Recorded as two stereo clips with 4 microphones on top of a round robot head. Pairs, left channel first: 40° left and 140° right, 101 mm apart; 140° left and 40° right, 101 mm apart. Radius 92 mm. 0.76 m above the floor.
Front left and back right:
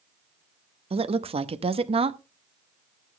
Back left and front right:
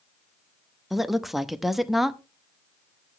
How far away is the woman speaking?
About 1.0 m.